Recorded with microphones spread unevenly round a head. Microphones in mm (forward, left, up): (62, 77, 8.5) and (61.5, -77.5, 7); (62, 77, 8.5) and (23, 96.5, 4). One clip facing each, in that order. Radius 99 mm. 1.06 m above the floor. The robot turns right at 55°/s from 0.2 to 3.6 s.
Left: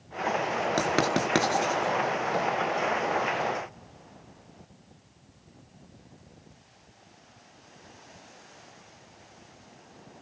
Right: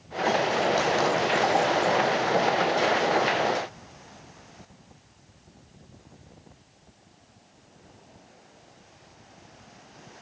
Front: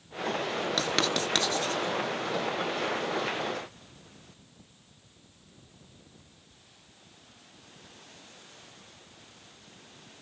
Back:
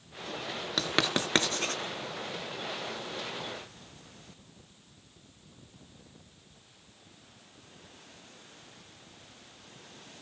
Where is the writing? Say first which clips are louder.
Right 2 dB, back 1 dB; 65° left, 4.5 m; by 1.8 s 125° left, 4.5 m.